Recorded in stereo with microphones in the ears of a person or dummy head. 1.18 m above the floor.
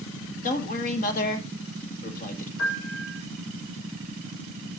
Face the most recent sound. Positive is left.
turn(degrees=85)